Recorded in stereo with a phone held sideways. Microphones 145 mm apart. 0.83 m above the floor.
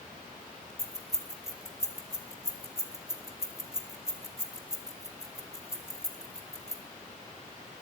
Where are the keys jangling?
20° left (ahead or behind), 1.2 m.